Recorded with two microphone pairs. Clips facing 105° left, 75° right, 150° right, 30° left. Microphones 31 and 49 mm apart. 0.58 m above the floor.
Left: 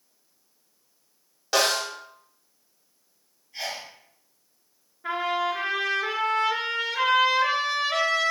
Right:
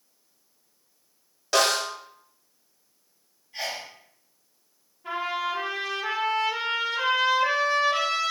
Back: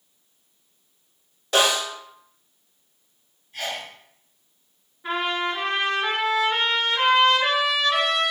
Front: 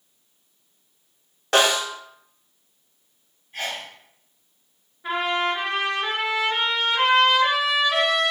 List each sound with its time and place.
1.5 s a snare drum: 25° left, 1.1 m
3.5 s a sneeze: 10° right, 1.8 m
5.0 s a trumpet: 120° left, 1.2 m